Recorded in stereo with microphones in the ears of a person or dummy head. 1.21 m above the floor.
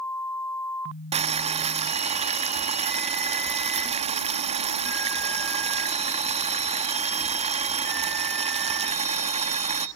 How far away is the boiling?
About 0.9 m.